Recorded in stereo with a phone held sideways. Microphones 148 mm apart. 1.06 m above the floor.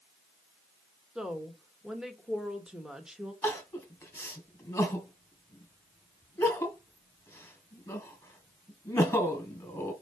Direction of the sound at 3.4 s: 15° left (ahead or behind).